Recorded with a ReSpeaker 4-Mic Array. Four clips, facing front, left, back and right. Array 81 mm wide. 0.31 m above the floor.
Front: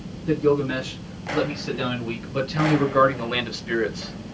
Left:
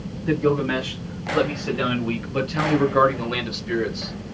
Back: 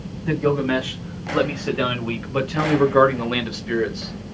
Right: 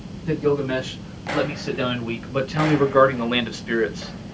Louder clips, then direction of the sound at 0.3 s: Even, even; 170° left.